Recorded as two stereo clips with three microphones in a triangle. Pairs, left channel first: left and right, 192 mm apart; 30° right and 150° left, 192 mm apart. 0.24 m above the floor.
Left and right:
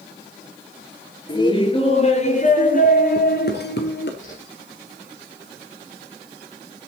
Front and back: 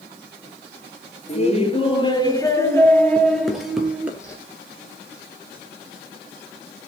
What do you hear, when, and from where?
1.3 s laughter: 20° left, 4 m; by 4.1 s 65° left, 4 m
4.2 s a whoosh: 45° left, 8.5 m